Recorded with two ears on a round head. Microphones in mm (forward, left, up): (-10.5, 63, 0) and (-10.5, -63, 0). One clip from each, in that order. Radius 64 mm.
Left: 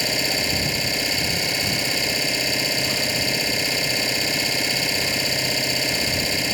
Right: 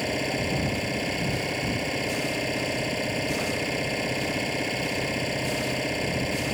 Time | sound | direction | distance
0.0 | an engine running | 75° left (ahead or behind) | ?